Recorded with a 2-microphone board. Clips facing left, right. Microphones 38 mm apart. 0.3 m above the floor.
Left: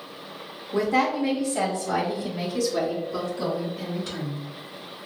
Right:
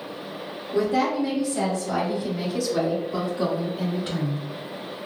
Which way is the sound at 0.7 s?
55° left (ahead or behind).